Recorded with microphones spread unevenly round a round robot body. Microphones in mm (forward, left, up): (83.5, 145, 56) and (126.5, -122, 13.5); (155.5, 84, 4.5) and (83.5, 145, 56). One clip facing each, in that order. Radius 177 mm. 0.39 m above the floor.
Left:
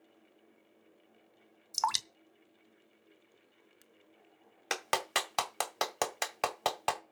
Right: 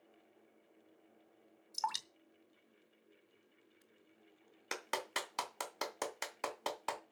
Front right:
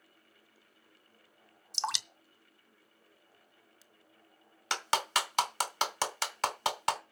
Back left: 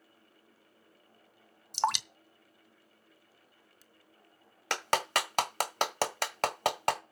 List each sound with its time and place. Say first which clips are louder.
1.7 s dripping: left 6 dB, back left 7 dB; 90° left, 0.8 m
4.7 s a clap: left 6 dB, back left 1 dB; 100° left, 1.7 m